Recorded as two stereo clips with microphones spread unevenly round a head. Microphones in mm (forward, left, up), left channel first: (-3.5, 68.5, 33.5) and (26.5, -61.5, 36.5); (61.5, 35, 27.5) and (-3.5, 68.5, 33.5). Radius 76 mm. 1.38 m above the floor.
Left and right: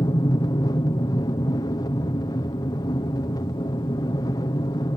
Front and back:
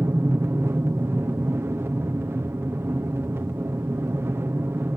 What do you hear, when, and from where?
0.0 s an aircraft: 130° left